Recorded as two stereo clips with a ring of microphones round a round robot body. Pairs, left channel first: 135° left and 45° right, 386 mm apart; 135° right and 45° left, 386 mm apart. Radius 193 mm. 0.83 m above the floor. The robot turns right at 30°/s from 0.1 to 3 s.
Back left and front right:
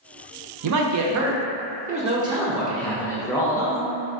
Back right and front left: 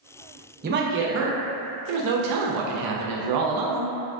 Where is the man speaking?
15° right, 0.5 m; by 3.9 s 55° left, 0.5 m.